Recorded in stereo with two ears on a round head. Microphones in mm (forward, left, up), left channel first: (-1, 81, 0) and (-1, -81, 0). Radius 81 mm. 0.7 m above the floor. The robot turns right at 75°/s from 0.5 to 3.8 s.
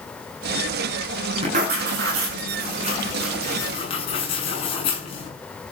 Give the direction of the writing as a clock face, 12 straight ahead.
5 o'clock.